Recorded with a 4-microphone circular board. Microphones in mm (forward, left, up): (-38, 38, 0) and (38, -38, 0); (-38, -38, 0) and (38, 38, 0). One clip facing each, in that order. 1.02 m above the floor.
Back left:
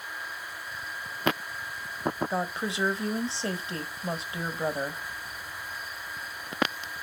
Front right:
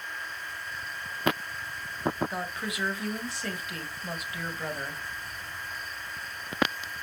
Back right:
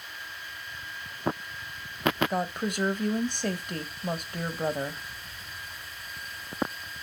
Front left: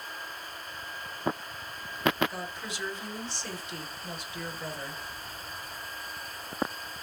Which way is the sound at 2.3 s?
165° right.